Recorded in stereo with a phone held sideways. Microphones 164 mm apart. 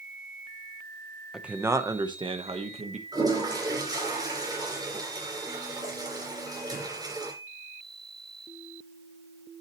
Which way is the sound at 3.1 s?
25° right (ahead or behind).